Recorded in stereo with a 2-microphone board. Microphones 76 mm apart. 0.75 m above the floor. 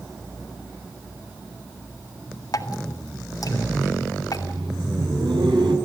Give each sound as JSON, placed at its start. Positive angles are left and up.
{"t": 2.5, "sound": "dripping", "side_deg": 55, "distance_m": 1.9}
{"t": 4.1, "sound": "laughter", "side_deg": -85, "distance_m": 6.5}